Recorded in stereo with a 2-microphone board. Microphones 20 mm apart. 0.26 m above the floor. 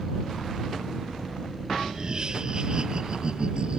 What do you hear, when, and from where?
1.9 s laughter: 40° right (ahead or behind); by 3.8 s 55° right (ahead or behind)